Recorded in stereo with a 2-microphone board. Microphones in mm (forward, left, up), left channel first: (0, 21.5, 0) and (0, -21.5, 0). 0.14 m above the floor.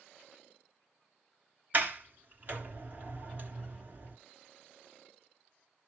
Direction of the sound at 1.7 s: 45° right (ahead or behind).